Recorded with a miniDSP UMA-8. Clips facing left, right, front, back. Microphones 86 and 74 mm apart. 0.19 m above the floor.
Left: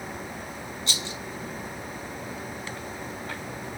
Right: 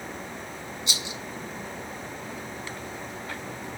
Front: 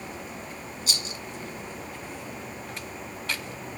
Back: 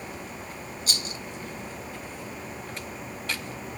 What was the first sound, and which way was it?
A rattle, 160° right.